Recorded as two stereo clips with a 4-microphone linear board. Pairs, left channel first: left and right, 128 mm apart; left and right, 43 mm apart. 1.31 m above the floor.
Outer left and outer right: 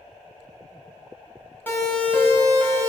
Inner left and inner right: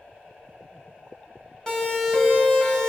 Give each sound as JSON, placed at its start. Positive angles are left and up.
{"t": 1.7, "sound": "a siren", "side_deg": 15, "distance_m": 9.5}